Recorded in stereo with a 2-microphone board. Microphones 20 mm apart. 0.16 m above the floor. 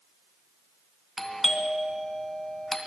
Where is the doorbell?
20° left (ahead or behind), 2.5 m.